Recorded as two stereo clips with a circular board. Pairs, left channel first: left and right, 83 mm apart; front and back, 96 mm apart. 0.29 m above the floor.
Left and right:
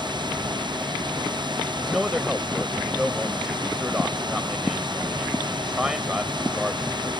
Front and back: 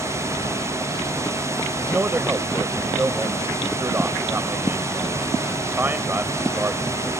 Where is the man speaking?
160° right.